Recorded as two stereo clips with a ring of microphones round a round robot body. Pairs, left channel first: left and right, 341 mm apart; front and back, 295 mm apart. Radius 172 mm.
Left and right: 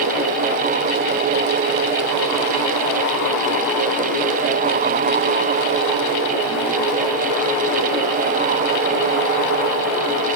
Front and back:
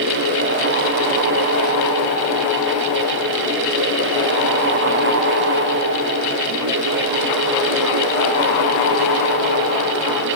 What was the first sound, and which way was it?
Only background noise.